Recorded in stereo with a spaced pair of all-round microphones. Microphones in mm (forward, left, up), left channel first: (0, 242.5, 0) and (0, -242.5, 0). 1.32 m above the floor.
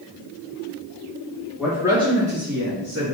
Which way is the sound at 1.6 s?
Centre (ahead or behind).